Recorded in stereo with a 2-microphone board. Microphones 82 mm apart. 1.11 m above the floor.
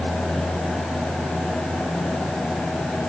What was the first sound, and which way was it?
Only background noise.